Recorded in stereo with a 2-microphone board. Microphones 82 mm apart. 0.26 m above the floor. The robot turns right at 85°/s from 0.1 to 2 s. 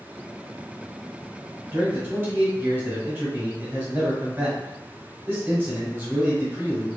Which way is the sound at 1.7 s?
35° right (ahead or behind).